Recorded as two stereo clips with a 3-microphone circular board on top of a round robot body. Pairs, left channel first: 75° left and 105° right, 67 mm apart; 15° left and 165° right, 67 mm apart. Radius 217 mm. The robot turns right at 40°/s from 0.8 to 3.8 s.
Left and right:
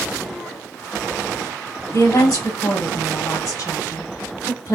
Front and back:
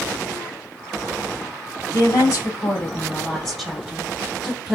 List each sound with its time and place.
1.9 s a woman speaking: 35° left, 2.5 m; by 4.8 s 110° left, 2.5 m